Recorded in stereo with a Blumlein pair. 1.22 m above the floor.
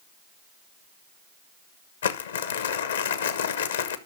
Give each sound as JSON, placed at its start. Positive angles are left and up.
{"t": 2.0, "sound": "crumpling", "azimuth_deg": 65, "distance_m": 1.0}